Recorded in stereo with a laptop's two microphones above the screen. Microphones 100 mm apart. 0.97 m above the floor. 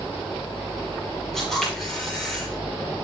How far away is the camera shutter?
About 7.5 m.